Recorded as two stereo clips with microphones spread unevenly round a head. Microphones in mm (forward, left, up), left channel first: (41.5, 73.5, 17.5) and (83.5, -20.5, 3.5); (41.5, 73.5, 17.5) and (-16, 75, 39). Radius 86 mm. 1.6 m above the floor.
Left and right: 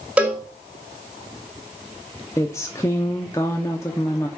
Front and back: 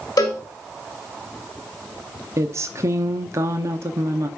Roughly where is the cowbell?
Ahead.